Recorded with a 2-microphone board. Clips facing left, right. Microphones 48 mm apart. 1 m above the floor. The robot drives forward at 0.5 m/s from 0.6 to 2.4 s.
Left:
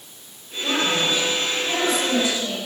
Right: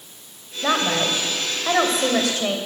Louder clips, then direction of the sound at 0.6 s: Right 1 dB; 65° right (ahead or behind).